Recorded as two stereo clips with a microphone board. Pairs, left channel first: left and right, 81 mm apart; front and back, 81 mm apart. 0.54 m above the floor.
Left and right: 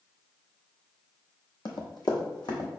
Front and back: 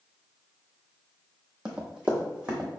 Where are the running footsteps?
105° left, 1.0 m; by 2.7 s 100° left, 1.5 m.